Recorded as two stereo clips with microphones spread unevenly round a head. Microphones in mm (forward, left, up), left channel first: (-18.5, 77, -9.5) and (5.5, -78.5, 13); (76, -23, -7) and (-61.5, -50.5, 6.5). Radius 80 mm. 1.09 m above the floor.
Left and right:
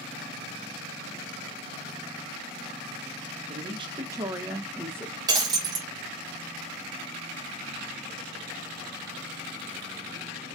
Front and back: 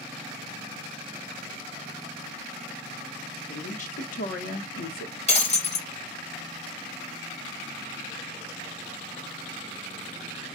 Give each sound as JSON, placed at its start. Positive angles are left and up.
{"t": 3.5, "sound": "a woman speaking", "azimuth_deg": -25, "distance_m": 1.7}
{"t": 5.3, "sound": "breaking glass", "azimuth_deg": -25, "distance_m": 1.2}